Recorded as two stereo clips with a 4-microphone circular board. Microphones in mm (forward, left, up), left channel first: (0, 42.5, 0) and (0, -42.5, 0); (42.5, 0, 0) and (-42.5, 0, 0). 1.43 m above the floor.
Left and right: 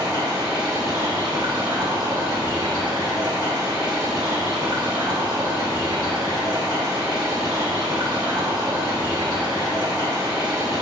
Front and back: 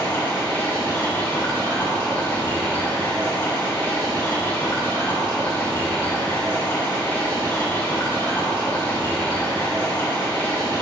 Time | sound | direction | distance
0.0 | running water | 60° right | 2.5 m